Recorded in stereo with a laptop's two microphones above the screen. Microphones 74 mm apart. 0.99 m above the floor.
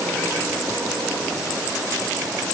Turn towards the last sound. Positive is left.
No sound to turn to.